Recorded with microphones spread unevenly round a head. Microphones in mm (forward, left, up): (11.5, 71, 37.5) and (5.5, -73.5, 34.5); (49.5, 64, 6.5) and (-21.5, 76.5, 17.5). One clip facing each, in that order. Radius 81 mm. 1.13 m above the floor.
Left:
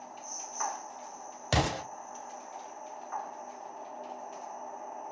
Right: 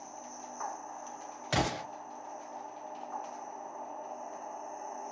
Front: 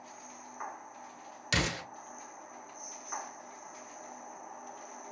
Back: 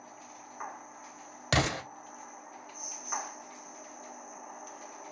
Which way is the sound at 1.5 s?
140° left.